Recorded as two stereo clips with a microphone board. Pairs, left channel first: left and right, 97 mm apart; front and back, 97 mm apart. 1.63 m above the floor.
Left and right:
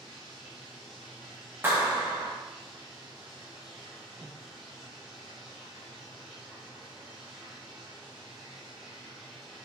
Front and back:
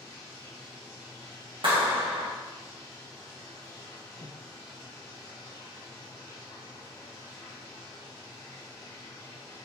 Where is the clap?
155° right, 1.4 m.